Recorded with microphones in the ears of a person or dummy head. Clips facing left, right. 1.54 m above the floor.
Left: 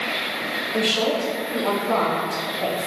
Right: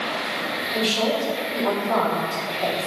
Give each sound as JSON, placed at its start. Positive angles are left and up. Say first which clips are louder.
{"t": 0.7, "sound": "a woman speaking", "louder": "left 1 dB", "side_deg": 30, "distance_m": 1.9}